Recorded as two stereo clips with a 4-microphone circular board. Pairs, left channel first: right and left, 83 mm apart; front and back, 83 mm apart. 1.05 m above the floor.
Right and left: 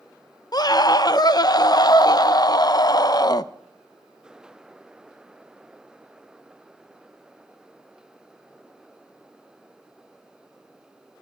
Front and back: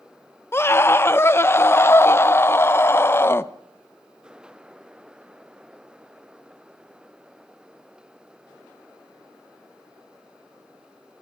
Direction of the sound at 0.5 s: 60° right.